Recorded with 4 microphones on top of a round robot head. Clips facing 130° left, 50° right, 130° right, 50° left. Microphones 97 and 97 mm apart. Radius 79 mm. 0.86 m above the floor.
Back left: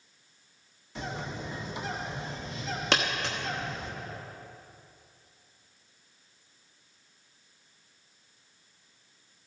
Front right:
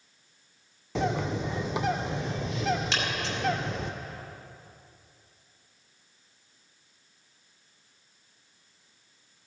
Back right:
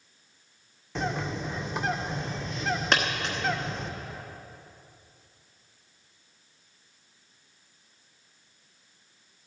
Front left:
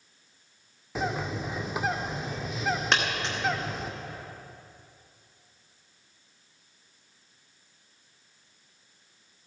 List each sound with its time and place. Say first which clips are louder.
0.9 s a bird: front right 9 dB, even; 35° right, 0.5 m
2.9 s a dropped coin: back left 2 dB, back right 1 dB; 140° left, 0.9 m